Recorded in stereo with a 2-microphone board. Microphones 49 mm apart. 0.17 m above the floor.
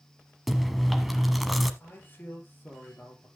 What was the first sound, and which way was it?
Chewing, centre (ahead or behind).